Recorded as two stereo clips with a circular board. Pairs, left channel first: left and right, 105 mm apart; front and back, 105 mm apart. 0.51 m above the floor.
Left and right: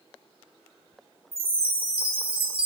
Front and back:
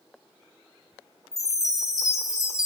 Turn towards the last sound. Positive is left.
turn(degrees=-60)